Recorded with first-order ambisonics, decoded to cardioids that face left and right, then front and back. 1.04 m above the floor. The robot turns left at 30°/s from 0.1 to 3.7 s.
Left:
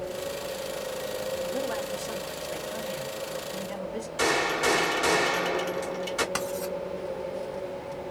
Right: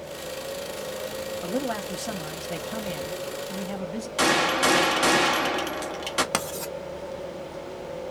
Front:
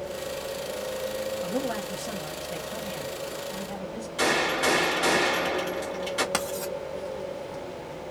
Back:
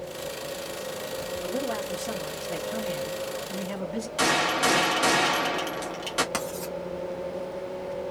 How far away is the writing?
About 1.2 m.